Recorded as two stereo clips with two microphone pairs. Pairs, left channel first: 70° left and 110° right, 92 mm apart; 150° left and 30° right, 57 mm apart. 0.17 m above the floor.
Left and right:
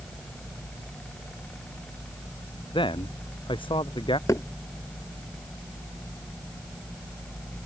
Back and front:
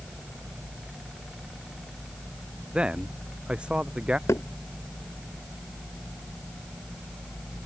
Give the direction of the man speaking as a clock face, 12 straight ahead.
11 o'clock.